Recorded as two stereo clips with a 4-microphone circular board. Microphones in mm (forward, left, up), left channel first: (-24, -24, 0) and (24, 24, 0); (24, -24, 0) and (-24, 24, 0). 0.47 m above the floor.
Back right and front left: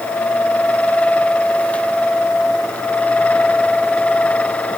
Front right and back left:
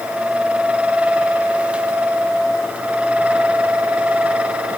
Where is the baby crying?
No baby crying in this recording.